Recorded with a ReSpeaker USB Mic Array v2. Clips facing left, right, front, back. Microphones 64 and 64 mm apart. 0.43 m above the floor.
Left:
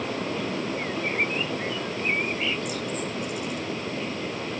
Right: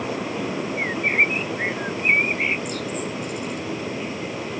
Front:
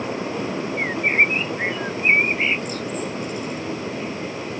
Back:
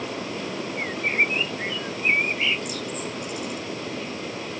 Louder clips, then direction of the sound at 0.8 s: Right 9 dB, front 5 dB; 55° right.